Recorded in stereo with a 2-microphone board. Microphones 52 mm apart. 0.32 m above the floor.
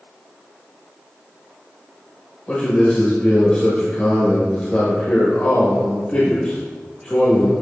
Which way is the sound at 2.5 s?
25° left (ahead or behind).